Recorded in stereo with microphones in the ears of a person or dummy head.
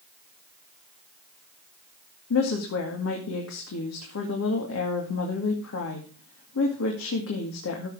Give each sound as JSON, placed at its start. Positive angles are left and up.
{"t": 2.3, "sound": "a woman speaking", "side_deg": 75, "distance_m": 2.0}